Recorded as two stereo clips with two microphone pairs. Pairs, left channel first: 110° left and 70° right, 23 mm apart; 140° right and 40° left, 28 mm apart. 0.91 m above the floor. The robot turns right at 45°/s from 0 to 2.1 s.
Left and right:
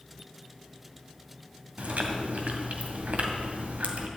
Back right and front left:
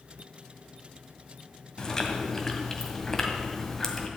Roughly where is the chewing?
Right.